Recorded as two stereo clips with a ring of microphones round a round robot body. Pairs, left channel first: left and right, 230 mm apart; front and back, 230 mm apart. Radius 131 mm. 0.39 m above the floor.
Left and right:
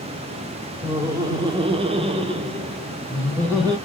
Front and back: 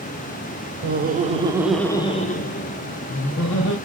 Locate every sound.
0.8 s laughter: 165° right, 1.0 m; by 3.8 s 15° right, 1.9 m